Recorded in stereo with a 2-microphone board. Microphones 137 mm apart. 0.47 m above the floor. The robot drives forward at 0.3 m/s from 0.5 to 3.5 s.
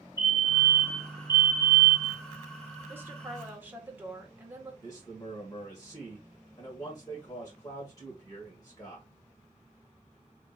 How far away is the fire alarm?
About 2.5 m.